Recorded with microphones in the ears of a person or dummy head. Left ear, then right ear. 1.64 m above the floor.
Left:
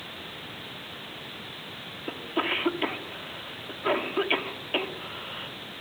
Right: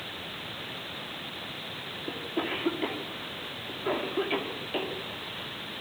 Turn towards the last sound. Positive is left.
turn(degrees=55)  # may be behind; listen again after turning